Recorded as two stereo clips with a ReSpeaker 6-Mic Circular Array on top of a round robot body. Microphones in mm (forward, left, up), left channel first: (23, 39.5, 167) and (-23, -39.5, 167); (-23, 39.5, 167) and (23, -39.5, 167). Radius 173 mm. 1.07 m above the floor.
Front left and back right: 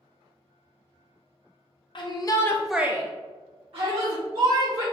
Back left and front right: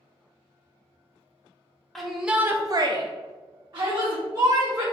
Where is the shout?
30° left, 0.7 m; by 4.8 s 115° right, 1.5 m.